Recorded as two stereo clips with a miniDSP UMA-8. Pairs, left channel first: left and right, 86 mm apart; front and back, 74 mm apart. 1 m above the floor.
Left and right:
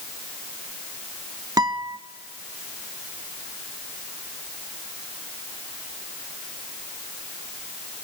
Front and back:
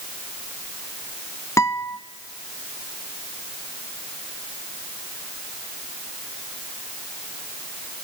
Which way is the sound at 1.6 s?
50° right.